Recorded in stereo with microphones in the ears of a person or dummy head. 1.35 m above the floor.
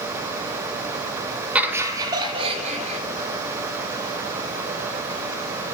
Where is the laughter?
15° right (ahead or behind), 1.5 m; by 3.0 s 45° right (ahead or behind), 2.5 m.